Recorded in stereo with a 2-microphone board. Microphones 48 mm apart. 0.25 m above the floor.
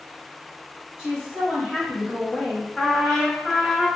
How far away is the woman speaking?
About 1.9 m.